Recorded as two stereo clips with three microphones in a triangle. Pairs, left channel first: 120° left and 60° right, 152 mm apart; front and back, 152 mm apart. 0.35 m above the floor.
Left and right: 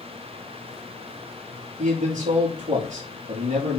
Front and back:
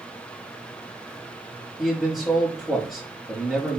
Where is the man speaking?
90° right, 5.5 m.